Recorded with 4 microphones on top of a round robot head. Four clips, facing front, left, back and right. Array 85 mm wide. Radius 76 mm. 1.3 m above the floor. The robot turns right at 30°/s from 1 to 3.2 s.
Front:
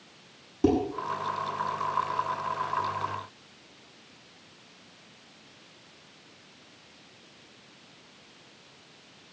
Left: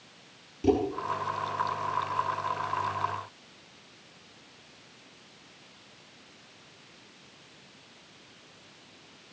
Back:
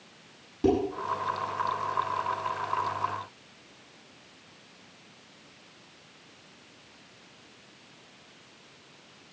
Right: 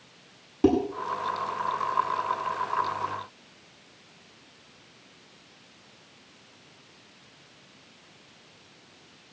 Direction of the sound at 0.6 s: 75° right.